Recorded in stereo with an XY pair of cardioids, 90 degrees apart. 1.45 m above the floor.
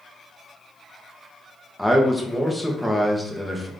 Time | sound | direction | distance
1.8 | a man speaking | straight ahead | 1.1 m